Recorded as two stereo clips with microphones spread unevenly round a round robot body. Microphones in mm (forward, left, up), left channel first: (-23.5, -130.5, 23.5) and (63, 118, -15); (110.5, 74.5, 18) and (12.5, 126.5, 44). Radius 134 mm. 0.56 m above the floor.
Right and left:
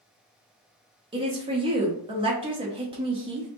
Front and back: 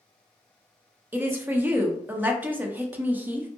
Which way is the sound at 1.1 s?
65° left.